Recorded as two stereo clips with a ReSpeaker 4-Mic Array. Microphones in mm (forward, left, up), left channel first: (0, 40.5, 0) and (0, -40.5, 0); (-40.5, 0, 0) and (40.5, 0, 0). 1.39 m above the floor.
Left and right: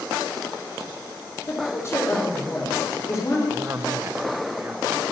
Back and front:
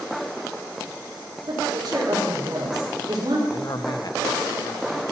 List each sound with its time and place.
1.5 s a woman speaking: 35° left, 3.5 m
3.5 s a man speaking: 150° right, 1.0 m